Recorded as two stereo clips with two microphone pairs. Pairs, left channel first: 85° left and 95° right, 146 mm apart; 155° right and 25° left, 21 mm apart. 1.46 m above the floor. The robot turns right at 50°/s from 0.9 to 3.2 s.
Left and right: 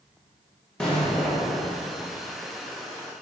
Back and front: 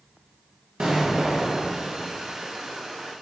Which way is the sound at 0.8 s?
5° right.